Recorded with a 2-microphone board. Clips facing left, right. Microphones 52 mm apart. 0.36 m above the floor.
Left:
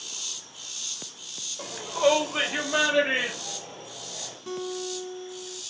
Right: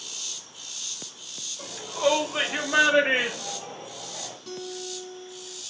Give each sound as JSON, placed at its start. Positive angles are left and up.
{"t": 1.6, "sound": "a shout", "side_deg": 30, "distance_m": 1.1}
{"t": 4.5, "sound": "a guitar", "side_deg": 25, "distance_m": 0.8}